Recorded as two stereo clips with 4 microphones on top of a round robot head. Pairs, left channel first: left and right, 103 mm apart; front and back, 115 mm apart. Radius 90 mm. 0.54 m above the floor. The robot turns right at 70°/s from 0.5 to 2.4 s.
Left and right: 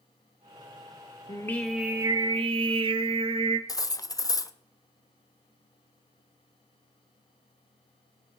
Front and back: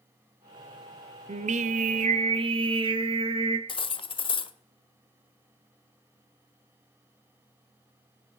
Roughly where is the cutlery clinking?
Ahead left.